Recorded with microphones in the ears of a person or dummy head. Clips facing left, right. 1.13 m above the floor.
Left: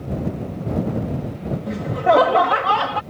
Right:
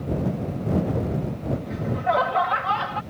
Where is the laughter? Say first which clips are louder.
Left 9 dB; 55° left (ahead or behind).